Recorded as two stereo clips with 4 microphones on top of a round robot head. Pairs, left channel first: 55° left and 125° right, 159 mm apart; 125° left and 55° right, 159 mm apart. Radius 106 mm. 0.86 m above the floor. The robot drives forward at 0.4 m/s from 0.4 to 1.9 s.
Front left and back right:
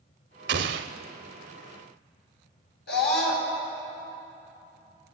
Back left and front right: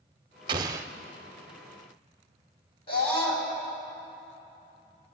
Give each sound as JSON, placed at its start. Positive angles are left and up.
{"t": 0.5, "sound": "an explosion", "azimuth_deg": -115, "distance_m": 0.6}
{"t": 2.9, "sound": "a scream", "azimuth_deg": 65, "distance_m": 5.5}